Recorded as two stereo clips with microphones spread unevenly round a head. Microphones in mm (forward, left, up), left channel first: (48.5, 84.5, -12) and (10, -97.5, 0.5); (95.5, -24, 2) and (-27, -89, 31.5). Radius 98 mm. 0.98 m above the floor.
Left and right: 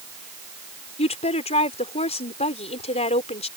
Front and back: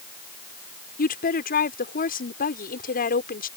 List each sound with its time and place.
1.0 s a woman speaking: 20° left